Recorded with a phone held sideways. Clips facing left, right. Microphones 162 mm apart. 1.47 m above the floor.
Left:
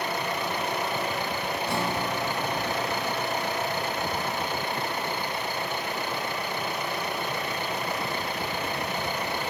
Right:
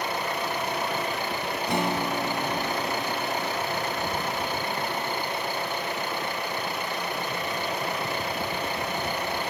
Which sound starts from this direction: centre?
A guitar, at 1.7 s.